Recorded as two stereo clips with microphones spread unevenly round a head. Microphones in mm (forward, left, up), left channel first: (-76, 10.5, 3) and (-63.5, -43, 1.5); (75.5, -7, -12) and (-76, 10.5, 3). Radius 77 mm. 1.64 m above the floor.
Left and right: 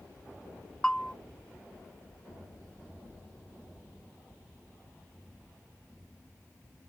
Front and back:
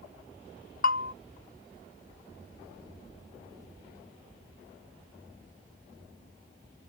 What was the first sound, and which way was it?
A bell, 25° left.